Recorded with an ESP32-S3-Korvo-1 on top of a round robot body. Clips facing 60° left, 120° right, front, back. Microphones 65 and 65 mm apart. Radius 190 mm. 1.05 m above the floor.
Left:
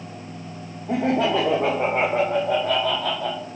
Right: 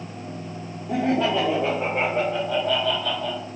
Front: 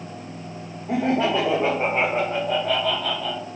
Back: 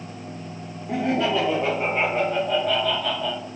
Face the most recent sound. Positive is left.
turn(degrees=100)